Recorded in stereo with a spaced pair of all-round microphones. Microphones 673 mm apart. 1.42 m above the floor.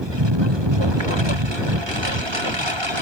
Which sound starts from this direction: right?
A lawn mower, at 0.0 s.